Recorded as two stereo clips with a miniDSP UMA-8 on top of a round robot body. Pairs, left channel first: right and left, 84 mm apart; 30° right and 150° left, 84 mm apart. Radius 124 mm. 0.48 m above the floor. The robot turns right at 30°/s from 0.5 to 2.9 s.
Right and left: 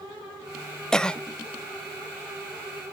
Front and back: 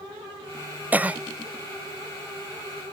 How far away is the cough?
About 0.8 m.